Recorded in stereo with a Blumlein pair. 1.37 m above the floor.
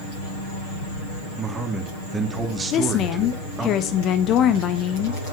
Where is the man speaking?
15° right, 2.5 m.